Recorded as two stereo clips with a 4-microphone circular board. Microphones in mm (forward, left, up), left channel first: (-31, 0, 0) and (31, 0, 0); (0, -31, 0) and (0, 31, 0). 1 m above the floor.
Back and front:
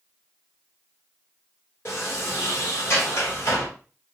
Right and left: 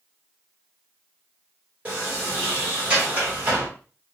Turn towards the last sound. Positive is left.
turn(degrees=145)